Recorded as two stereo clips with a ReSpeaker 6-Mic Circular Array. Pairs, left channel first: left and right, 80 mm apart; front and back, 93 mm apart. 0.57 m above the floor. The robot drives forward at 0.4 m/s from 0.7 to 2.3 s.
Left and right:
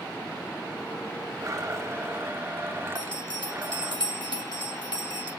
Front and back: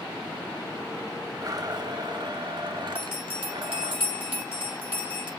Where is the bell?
110° left, 5 m.